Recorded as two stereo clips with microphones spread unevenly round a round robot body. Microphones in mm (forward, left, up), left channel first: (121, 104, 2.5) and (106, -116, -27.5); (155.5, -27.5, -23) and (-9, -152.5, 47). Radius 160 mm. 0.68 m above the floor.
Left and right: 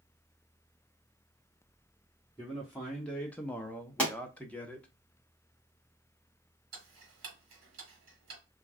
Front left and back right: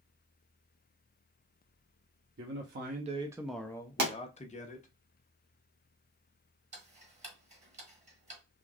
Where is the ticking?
90° right, 1.5 m.